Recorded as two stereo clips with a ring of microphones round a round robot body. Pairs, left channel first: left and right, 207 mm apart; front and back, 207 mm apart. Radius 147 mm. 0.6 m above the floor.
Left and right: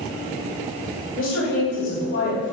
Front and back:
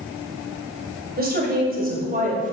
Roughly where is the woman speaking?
Behind left.